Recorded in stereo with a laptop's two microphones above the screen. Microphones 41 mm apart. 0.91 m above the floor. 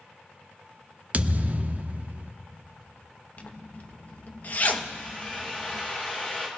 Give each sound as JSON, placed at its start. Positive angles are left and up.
{"t": 1.1, "sound": "a thud", "side_deg": -40, "distance_m": 0.5}
{"t": 3.4, "sound": "a zipper", "side_deg": 40, "distance_m": 0.8}
{"t": 4.9, "sound": "a drill", "side_deg": 35, "distance_m": 5.0}